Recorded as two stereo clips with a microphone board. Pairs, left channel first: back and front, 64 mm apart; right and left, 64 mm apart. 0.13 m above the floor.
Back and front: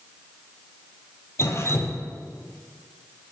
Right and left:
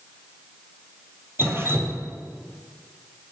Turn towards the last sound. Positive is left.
turn(degrees=140)